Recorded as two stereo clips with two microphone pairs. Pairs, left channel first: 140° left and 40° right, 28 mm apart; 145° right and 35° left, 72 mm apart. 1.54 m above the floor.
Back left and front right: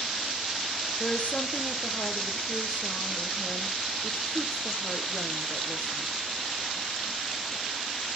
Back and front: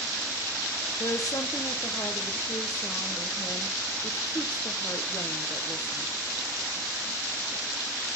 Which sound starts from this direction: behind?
A woman speaking, at 1.0 s.